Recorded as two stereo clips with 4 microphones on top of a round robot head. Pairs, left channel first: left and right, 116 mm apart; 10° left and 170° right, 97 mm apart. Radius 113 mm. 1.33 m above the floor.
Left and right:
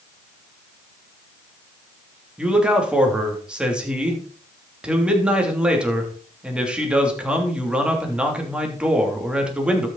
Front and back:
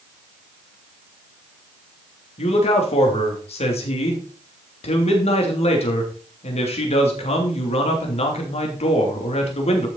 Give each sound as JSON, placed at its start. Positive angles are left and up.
{"t": 2.4, "sound": "a man speaking", "azimuth_deg": -10, "distance_m": 3.0}